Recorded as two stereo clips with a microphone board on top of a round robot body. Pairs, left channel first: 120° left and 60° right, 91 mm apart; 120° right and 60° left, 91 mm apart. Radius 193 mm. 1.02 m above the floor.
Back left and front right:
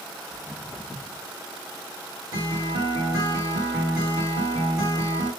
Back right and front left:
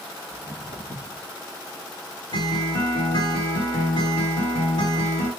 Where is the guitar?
110° right, 3 m.